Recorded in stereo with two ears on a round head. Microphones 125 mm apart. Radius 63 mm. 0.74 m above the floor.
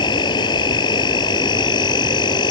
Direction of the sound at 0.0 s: 35° left (ahead or behind).